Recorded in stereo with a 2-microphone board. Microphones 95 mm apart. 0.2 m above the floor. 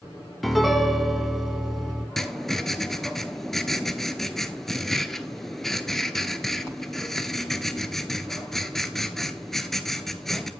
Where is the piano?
Centre (ahead or behind), 0.8 m.